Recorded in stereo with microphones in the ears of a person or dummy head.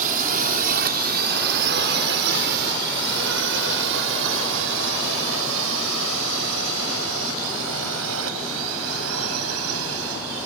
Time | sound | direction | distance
0.0 | a drone | 40° right (ahead or behind) | ?